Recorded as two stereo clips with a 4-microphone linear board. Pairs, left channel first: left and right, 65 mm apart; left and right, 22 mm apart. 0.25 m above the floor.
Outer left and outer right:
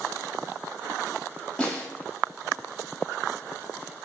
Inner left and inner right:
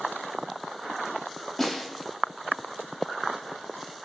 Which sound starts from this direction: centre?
A snare drum, at 1.6 s.